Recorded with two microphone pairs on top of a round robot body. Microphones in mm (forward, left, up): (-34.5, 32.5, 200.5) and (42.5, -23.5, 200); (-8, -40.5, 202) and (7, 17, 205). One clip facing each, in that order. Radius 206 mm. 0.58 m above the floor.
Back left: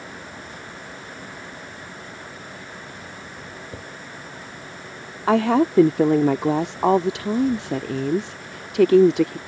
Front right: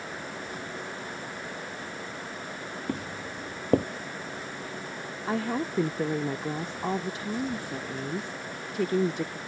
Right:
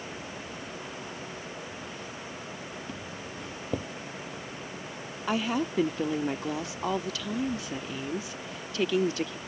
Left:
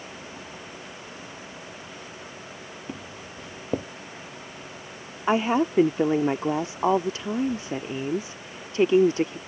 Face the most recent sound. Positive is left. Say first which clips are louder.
# back left 12 dB, left 7 dB
turn(degrees=135)